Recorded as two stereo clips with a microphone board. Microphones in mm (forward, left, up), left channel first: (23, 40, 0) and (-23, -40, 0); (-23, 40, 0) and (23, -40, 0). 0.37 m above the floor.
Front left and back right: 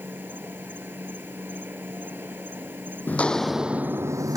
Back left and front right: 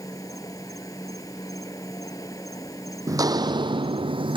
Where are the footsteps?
10° right; by 4.4 s 75° right.